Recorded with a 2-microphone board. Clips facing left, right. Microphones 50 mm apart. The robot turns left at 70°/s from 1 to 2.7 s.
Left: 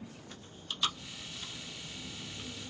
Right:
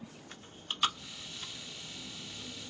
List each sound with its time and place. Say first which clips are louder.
0.3 s chewing: right 4 dB; 30° right (ahead or behind), 0.9 m; by 2.7 s 45° left (ahead or behind), 0.9 m